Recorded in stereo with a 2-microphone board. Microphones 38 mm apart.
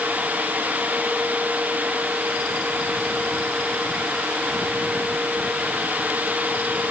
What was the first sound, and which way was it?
Only background noise.